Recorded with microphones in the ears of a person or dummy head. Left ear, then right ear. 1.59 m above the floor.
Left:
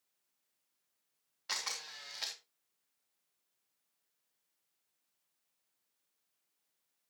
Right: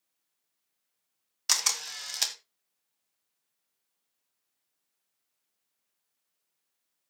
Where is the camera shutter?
80° right, 2 m.